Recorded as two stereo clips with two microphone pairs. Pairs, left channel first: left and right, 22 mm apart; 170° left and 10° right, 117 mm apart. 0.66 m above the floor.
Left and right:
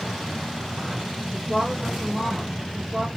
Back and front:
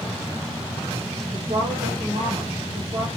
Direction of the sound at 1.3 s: 35° right.